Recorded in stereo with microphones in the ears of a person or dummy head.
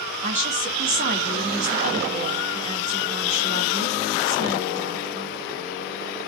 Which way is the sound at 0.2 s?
40° right (ahead or behind).